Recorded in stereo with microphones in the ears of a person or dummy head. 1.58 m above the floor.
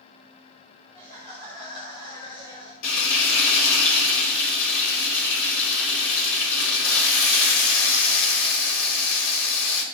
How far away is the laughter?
About 3 m.